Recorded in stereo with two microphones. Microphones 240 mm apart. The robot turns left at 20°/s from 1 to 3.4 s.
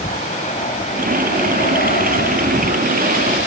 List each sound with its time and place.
0.0 s an aircraft: 35° left (ahead or behind); by 3.5 s 50° left (ahead or behind)